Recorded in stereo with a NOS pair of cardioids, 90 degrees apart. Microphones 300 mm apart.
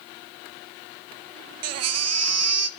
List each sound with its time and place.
1.6 s a baby crying: 60° right, 0.7 m